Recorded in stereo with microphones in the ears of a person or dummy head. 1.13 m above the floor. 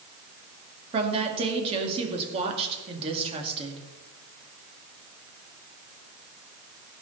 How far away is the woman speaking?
About 2 m.